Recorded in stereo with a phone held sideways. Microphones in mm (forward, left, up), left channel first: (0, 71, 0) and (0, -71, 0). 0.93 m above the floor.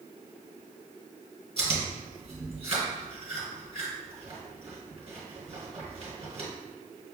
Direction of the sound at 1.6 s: 50° right (ahead or behind).